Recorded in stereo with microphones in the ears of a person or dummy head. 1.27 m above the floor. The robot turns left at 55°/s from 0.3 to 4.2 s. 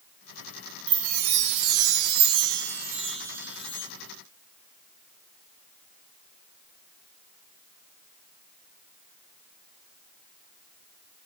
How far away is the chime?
About 0.6 m.